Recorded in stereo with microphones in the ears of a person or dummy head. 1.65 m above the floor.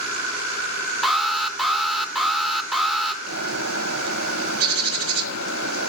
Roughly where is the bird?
Right.